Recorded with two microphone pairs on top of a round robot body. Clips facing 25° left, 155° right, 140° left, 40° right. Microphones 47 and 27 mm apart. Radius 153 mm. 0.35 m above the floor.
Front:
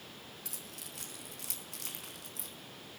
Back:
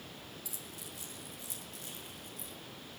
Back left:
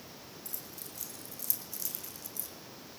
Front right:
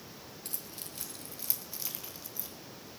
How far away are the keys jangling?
About 5 m.